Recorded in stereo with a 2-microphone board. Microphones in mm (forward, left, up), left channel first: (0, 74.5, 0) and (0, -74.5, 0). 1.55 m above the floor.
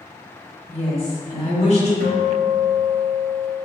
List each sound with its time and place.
0.7 s a woman speaking: 40° left (ahead or behind), 1.7 m; by 1.9 s 50° left (ahead or behind), 0.9 m
2.0 s a guitar: 75° right (ahead or behind), 1.0 m